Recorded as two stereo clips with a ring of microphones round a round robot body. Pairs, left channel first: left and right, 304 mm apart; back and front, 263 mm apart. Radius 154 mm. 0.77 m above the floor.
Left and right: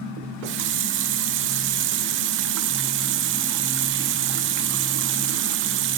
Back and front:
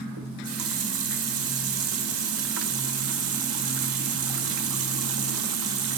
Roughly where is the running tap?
Ahead right.